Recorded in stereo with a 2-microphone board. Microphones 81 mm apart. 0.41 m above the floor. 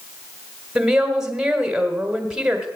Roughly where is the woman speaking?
Centre.